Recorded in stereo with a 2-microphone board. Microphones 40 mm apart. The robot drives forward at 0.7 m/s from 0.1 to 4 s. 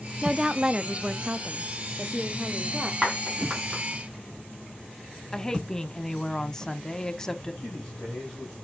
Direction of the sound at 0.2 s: 15° right (ahead or behind).